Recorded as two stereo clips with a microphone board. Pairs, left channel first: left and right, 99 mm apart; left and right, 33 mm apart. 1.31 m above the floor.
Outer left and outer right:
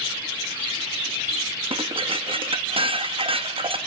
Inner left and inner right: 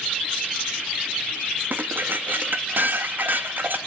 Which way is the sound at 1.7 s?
60° right (ahead or behind).